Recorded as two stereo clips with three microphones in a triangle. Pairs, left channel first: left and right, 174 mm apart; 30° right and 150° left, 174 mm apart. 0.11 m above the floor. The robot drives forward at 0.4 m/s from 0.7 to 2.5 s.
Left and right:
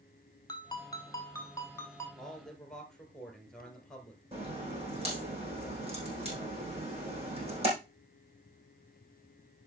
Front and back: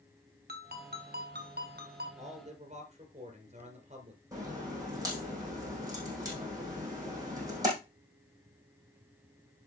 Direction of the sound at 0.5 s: 155° left.